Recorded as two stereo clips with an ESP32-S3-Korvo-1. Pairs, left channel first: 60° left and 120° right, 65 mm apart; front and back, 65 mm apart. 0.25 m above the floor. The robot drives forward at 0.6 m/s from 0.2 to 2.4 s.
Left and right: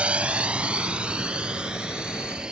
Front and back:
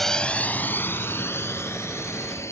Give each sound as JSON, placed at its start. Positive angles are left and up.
{"t": 0.0, "sound": "a drone", "azimuth_deg": -80}